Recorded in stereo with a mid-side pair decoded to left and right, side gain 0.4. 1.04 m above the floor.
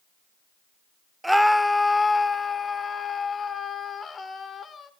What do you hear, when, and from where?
1.2 s a scream: 5° right, 0.7 m; by 4.9 s 50° left, 3 m